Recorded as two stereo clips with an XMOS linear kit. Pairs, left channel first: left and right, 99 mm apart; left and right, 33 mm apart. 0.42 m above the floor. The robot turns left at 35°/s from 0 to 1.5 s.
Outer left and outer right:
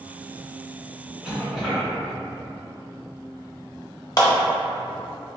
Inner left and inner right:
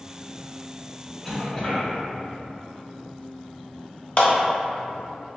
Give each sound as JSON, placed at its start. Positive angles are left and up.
{"t": 1.2, "sound": "a cough", "side_deg": -10, "distance_m": 1.4}
{"t": 4.2, "sound": "a clap", "side_deg": 40, "distance_m": 0.8}